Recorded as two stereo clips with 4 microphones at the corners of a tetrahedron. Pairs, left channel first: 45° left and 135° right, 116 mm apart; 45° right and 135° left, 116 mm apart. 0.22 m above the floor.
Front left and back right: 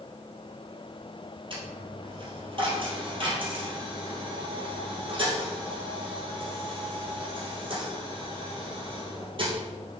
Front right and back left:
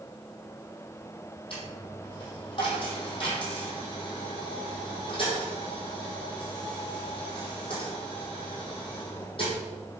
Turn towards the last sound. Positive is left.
turn(degrees=-90)